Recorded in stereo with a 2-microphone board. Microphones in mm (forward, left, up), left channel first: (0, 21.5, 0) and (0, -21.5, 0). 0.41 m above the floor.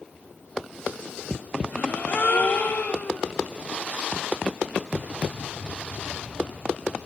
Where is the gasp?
45° left (ahead or behind), 0.5 m.